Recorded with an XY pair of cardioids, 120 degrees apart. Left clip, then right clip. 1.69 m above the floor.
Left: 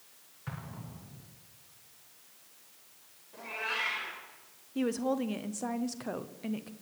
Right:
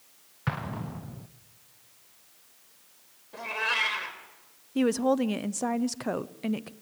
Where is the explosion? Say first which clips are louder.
Right 12 dB; 70° right, 0.8 m.